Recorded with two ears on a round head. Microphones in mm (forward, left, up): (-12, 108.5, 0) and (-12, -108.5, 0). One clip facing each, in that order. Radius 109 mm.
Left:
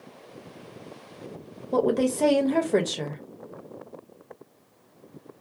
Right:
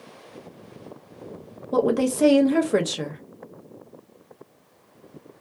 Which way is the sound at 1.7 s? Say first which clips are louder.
Right 2 dB; 10° right (ahead or behind).